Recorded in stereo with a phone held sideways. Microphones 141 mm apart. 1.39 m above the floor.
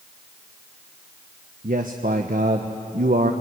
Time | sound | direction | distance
1.6 | a man speaking | 75° right (ahead or behind) | 1.1 m